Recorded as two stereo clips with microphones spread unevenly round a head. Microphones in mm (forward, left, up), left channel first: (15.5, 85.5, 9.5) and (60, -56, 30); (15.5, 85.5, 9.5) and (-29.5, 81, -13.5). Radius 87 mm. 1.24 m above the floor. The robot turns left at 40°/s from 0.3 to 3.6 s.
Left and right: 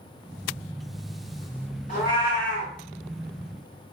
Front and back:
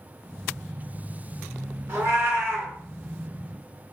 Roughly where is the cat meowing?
Behind left.